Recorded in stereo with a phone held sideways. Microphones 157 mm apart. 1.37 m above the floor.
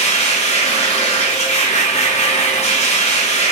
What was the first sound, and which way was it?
A machine running, 45° left (ahead or behind).